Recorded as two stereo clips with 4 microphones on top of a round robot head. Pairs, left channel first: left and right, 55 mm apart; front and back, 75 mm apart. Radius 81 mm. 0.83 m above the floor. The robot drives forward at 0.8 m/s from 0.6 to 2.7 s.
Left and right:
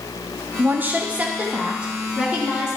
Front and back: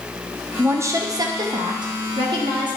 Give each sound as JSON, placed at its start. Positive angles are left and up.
{"t": 0.6, "sound": "a woman speaking", "azimuth_deg": -125, "distance_m": 0.7}